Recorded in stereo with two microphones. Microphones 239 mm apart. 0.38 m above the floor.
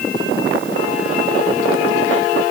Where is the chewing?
I don't hear chewing.